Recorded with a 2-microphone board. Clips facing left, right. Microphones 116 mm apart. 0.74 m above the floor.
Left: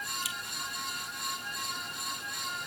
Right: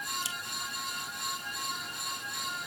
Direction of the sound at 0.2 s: 30° right (ahead or behind).